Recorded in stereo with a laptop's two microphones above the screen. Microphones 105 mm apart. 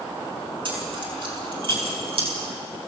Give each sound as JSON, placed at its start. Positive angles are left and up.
{"t": 0.7, "sound": "keys jangling", "side_deg": -55, "distance_m": 7.0}